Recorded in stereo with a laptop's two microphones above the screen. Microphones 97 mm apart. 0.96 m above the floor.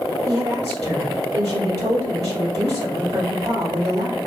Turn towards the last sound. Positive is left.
turn(degrees=-75)  # may be behind; listen again after turning